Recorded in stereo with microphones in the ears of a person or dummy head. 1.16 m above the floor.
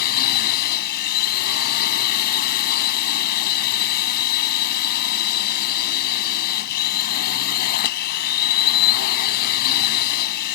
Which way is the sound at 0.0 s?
55° left (ahead or behind).